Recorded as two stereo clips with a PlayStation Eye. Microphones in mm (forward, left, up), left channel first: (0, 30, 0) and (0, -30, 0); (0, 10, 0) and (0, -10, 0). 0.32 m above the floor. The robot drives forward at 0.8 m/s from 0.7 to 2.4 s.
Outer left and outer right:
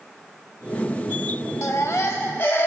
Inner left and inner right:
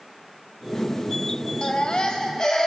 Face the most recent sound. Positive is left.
turn(degrees=40)  # may be behind; listen again after turning